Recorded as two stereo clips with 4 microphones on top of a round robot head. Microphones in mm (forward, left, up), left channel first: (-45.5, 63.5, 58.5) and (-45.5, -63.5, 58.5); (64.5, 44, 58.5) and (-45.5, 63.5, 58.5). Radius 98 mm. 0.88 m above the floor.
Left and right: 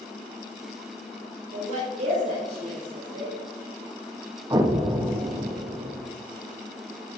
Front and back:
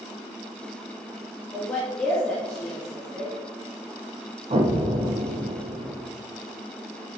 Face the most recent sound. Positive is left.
turn(degrees=-150)